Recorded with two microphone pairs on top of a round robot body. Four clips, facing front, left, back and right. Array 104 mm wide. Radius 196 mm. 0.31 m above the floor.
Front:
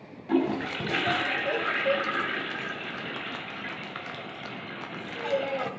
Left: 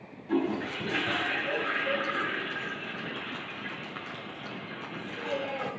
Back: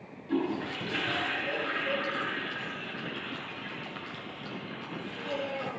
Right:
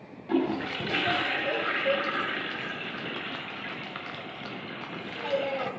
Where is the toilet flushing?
35° right, 2.5 m.